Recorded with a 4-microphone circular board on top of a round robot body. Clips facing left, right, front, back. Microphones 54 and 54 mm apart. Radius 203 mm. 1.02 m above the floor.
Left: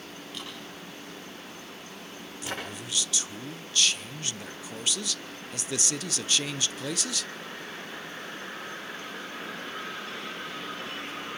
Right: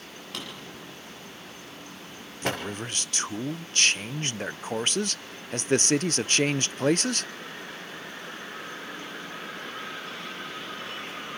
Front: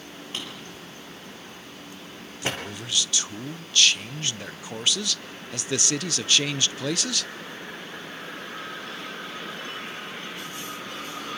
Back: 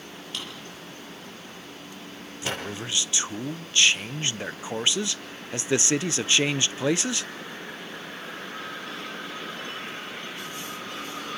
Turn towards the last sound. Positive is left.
turn(degrees=-120)